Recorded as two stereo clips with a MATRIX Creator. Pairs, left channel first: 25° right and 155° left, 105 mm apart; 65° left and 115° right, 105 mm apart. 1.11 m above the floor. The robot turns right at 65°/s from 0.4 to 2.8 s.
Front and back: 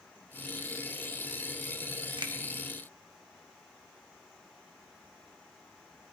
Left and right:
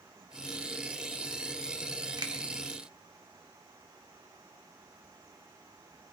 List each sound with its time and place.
2.2 s a finger snap: 165° right, 1.1 m; by 2.3 s 155° right, 1.1 m